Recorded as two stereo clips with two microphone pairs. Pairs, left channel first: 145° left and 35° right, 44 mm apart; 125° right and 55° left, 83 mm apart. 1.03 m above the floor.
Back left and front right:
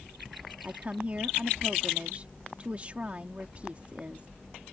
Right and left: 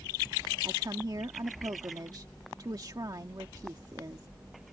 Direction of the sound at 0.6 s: 20° left.